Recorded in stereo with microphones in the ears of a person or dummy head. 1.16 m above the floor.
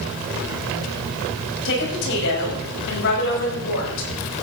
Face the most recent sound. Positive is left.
turn(degrees=75)  # may be behind; listen again after turning